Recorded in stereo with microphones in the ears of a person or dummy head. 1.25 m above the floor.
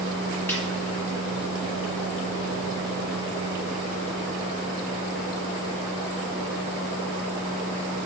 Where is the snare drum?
10° left (ahead or behind), 2 m.